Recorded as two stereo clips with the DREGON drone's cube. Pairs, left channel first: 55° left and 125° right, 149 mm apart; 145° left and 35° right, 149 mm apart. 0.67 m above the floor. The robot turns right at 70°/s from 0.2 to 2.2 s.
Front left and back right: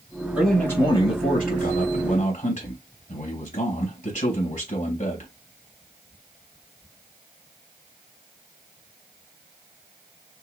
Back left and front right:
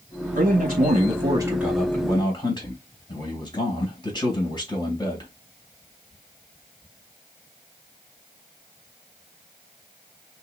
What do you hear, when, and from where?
0.3 s a man speaking: 40° right, 2.5 m; by 5.3 s 85° left, 2.5 m